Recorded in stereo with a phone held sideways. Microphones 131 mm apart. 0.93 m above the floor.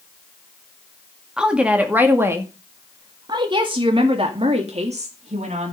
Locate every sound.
1.4 s a woman speaking: 5° right (ahead or behind), 2.0 m; by 5.7 s 60° right (ahead or behind), 2.5 m